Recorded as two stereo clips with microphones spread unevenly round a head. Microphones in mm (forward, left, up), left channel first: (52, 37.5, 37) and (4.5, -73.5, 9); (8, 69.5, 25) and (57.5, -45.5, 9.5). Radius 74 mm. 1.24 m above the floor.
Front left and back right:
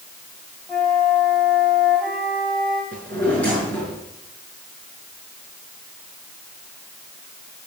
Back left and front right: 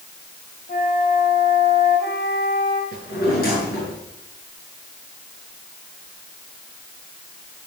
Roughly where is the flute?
Behind left.